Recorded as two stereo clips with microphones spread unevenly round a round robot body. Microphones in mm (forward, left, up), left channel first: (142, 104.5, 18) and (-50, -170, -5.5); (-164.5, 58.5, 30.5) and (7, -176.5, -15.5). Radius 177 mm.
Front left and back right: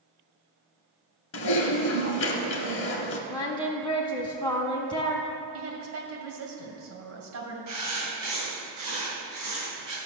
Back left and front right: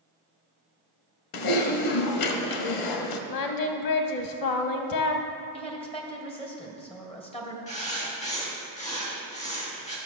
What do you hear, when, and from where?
1.3 s typing on a keyboard: 115° left, 0.9 m
3.3 s singing: 135° left, 1.0 m
5.5 s a woman speaking: 160° right, 2.5 m
7.7 s writing: 165° right, 3.5 m